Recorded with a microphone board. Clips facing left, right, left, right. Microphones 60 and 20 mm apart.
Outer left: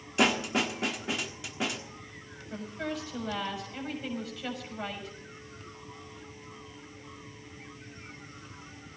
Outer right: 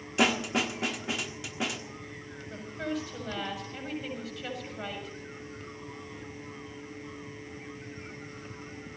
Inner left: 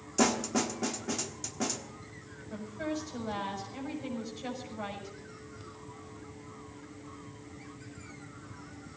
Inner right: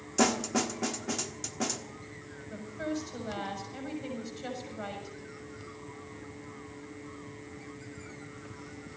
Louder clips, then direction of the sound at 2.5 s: Outer right 1 dB, even; 5° right (ahead or behind).